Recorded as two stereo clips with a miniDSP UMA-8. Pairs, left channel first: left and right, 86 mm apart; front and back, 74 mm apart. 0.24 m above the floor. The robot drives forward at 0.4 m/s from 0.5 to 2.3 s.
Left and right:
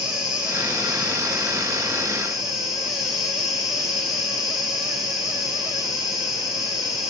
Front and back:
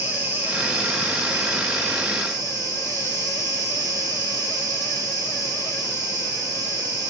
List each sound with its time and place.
0.0 s an insect: 160° right, 0.9 m; by 7.1 s 175° right, 1.4 m